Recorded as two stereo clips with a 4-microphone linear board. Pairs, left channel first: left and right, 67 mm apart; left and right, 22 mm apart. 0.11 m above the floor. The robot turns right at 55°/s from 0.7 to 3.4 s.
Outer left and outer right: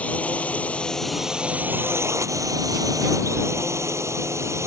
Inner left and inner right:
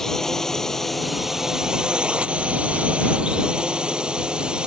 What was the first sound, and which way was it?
A drone, 160° left.